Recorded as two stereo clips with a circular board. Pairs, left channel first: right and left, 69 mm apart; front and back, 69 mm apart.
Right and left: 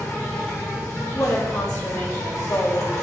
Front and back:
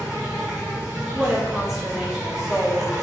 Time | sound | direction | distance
0.0 | an insect | 110° right | 1.9 m
1.1 | a woman speaking | 100° right | 1.0 m